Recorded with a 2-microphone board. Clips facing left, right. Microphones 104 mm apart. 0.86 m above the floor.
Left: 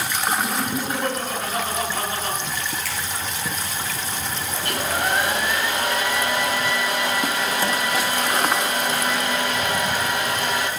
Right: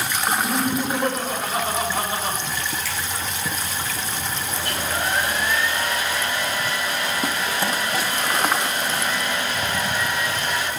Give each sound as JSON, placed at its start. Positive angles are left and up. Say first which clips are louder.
{"t": 0.3, "sound": "laughter", "louder": "right 2 dB", "side_deg": -15, "distance_m": 9.0}
{"t": 2.9, "sound": "a finger snap", "louder": "even", "side_deg": 55, "distance_m": 6.5}
{"t": 4.6, "sound": "a hair dryer", "louder": "left 3 dB", "side_deg": 60, "distance_m": 3.5}